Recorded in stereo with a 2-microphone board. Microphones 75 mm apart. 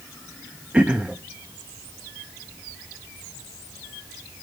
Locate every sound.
0.7 s throat clearing: 15° right (ahead or behind), 1.3 m